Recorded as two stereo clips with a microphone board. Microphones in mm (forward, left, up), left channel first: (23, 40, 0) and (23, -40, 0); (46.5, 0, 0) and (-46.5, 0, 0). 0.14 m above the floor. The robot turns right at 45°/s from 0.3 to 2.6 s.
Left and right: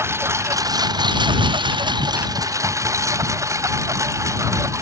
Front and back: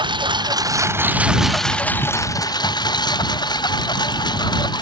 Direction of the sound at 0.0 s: 145° right.